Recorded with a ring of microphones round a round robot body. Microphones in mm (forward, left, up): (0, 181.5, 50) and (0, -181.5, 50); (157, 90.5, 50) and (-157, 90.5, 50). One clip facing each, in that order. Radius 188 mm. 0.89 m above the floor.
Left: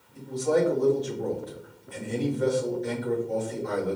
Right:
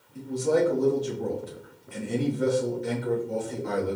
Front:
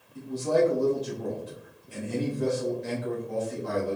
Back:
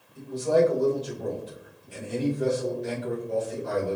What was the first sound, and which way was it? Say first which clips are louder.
A man speaking: right 1 dB, back 2 dB; 35° right.